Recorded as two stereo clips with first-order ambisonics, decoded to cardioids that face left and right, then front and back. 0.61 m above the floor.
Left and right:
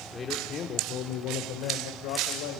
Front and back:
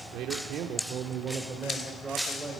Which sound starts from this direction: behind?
A man speaking, at 0.1 s.